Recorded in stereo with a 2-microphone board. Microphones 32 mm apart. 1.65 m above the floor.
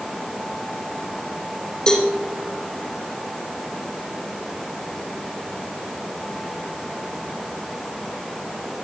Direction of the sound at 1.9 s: 25° left (ahead or behind).